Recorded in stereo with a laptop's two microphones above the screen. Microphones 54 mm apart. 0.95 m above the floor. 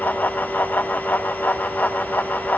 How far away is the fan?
About 1.0 m.